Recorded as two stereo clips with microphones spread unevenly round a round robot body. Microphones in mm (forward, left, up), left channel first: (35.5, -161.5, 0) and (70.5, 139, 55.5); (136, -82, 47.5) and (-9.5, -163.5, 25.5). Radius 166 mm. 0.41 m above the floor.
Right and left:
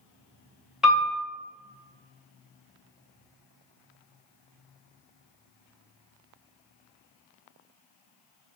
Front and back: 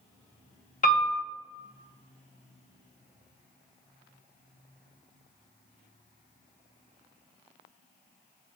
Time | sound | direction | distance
0.8 | a piano | 10° right | 1.4 m